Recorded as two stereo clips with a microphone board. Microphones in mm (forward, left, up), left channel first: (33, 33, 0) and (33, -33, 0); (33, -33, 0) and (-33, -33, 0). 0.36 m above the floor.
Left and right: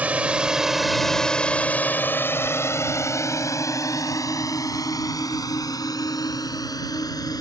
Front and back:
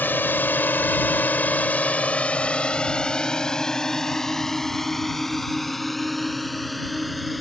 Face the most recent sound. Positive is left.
turn(degrees=90)